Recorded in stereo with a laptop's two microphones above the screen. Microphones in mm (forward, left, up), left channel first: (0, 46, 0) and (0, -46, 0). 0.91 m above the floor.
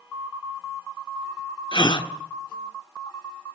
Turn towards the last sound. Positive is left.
turn(degrees=55)  # may be behind; listen again after turning